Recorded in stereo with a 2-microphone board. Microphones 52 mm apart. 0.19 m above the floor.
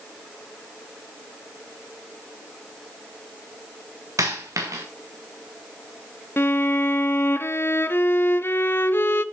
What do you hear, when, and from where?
4.2 s a dropped coin: 85° right, 2 m
6.4 s a violin: 45° left (ahead or behind), 0.5 m